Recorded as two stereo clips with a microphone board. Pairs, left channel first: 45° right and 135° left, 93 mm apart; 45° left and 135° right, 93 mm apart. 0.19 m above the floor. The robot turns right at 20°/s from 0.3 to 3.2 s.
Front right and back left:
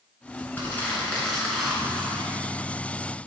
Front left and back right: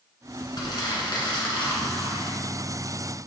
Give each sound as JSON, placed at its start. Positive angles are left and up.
{"t": 0.6, "sound": "crumpling", "azimuth_deg": 20, "distance_m": 2.0}